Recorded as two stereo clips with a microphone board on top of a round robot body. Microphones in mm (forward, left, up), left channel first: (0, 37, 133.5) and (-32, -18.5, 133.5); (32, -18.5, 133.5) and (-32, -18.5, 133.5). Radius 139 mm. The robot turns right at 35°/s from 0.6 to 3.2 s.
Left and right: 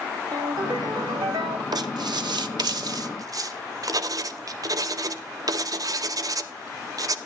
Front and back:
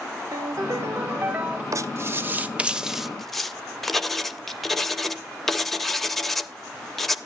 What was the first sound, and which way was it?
A ringtone, 140° right.